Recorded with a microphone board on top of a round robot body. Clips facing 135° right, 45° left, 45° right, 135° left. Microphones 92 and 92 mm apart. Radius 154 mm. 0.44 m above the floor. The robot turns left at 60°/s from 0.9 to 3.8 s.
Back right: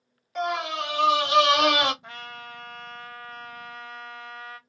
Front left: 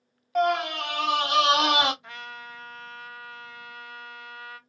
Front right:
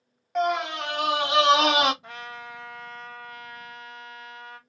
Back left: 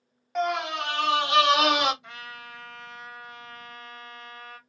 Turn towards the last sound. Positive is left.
turn(degrees=170)